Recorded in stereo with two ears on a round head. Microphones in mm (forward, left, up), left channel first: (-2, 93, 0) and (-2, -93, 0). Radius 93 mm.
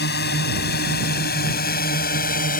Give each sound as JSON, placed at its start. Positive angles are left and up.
{"t": 0.0, "sound": "a drone", "side_deg": 55}